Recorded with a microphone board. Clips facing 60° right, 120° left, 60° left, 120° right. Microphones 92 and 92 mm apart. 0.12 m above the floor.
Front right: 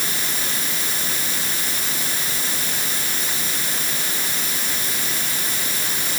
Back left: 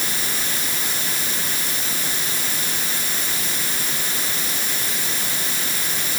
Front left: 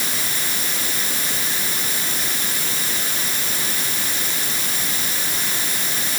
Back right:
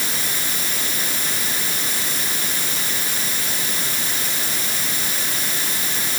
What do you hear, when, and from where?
Only background noise.